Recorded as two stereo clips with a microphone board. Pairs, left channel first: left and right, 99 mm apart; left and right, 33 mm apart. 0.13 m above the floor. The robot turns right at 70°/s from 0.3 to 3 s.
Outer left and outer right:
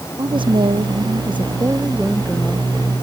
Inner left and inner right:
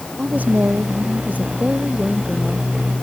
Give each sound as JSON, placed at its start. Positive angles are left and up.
{"t": 0.2, "sound": "a woman speaking", "azimuth_deg": -130}